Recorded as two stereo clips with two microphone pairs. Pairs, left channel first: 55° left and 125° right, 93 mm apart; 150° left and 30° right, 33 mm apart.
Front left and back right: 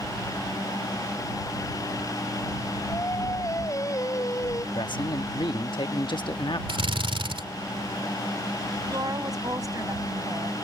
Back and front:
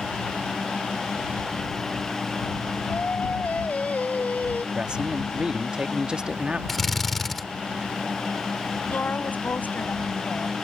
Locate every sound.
2.9 s singing: 105° left
4.8 s a man speaking: 35° left
6.7 s a drill: 125° right
8.9 s a woman speaking: 175° right